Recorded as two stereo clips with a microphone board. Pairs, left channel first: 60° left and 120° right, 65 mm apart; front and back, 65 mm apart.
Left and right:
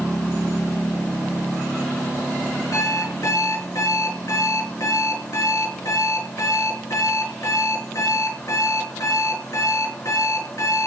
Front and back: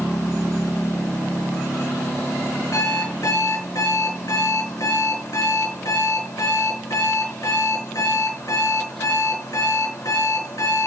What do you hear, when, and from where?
2.7 s an alarm clock: 25° left, 5 m